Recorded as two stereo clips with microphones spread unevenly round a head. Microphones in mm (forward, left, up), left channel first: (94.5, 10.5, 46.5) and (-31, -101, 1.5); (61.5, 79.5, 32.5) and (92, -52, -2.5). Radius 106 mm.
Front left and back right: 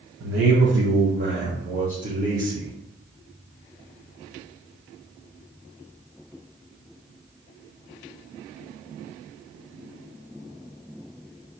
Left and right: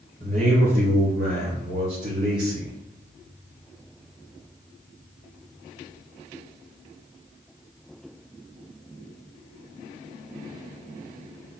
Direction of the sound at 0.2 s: 145° right.